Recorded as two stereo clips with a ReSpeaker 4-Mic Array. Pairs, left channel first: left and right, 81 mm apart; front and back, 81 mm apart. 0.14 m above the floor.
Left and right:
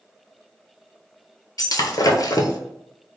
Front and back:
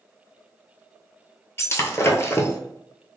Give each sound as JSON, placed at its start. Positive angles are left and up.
{"t": 1.6, "sound": "breaking glass", "azimuth_deg": 55, "distance_m": 0.5}